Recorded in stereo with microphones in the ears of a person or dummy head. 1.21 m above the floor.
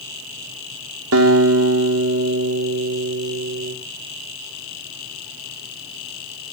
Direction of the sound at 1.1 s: 70° right (ahead or behind).